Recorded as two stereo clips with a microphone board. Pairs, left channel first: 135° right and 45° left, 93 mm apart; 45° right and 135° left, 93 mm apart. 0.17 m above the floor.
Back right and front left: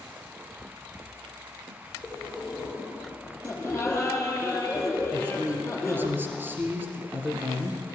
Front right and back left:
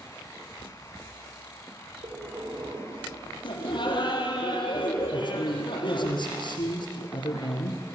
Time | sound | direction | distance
2.0 | breathing | 155° left | 7.5 m
3.4 | laughter | 55° right | 3.5 m
5.1 | a man speaking | 20° right | 3 m